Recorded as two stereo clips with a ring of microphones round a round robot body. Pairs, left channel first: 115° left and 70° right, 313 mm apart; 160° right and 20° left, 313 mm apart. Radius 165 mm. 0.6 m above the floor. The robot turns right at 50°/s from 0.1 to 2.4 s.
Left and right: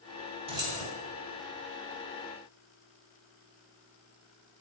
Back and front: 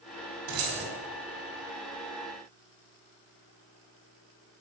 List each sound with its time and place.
0.5 s keys jangling: 5° left, 2.5 m; by 0.8 s 25° left, 2.5 m